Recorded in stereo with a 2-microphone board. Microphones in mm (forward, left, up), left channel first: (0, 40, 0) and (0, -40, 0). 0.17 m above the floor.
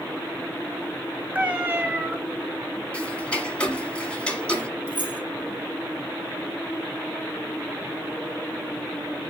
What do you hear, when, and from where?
1.4 s a cat meowing: 20° right (ahead or behind), 0.8 m
2.9 s ticking: 15° left (ahead or behind), 0.9 m
4.9 s keys jangling: 30° left (ahead or behind), 2.5 m